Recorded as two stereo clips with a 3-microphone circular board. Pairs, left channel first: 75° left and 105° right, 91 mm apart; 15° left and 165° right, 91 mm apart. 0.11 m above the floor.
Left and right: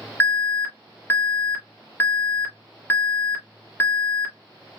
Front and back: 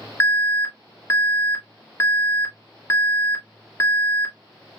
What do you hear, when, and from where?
0.2 s an alarm: 35° left, 1.5 m